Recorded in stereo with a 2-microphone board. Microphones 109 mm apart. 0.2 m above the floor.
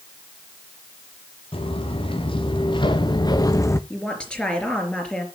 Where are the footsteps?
55° left (ahead or behind), 3 m; by 3.8 s 20° left (ahead or behind), 0.9 m.